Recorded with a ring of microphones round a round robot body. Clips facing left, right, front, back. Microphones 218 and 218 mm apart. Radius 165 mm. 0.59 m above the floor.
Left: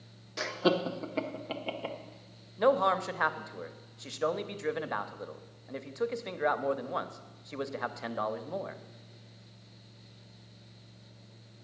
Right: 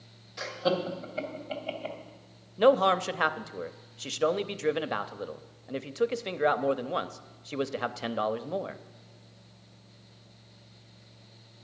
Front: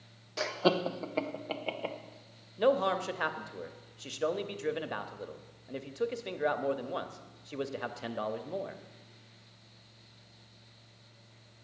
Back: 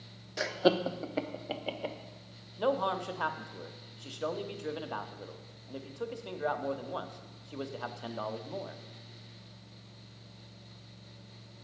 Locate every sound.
0.4 s laughter: 105° left, 0.9 m; by 2.0 s 100° left, 1.8 m
2.6 s a man speaking: 55° right, 0.8 m